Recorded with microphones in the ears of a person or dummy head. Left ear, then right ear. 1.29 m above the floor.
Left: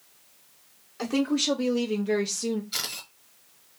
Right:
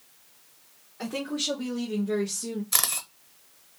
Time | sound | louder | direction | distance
1.0 | a woman speaking | left 4 dB | 85° left | 1.0 m
2.7 | a camera shutter | right 3 dB | 45° right (ahead or behind) | 0.9 m